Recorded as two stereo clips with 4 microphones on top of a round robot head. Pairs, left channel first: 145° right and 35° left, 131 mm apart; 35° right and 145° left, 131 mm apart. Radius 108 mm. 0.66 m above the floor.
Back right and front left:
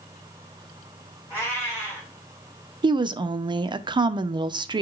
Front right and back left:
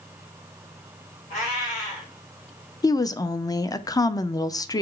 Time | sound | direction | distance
1.3 | a cat meowing | 75° right | 2.5 m
2.8 | a woman speaking | 10° left | 0.5 m